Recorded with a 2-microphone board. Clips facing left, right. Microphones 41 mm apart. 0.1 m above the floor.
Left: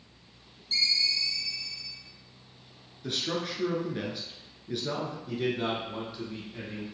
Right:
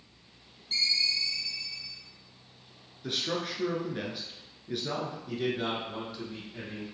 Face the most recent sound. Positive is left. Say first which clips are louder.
# left 2 dB
turn(degrees=5)  # may be behind; listen again after turning